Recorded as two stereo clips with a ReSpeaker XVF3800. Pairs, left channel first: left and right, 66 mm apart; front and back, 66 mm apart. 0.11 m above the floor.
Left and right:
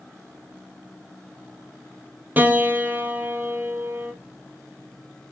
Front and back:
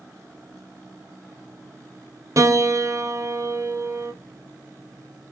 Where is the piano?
150° right, 1.3 m.